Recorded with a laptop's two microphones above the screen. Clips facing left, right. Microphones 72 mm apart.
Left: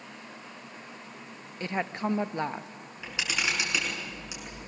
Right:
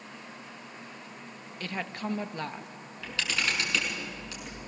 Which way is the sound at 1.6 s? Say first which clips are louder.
Left 4 dB; 25° left (ahead or behind).